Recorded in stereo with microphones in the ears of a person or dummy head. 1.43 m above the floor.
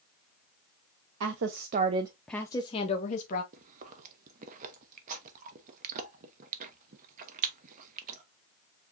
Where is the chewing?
40° right (ahead or behind), 0.8 m.